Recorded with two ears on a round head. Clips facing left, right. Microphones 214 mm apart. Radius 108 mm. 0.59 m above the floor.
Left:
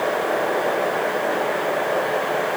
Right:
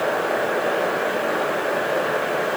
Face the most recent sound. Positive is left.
No sound to turn to.